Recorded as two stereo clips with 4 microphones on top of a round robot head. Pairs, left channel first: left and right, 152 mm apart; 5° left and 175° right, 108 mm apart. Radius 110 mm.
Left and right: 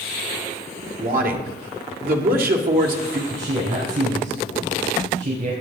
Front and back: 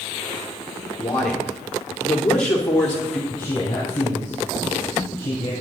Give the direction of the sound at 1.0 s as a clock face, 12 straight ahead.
3 o'clock.